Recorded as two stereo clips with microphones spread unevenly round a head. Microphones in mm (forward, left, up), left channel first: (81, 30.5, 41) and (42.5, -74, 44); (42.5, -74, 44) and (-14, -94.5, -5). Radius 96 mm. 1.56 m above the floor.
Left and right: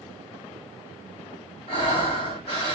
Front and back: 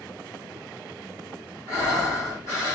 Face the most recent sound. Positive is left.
turn(degrees=105)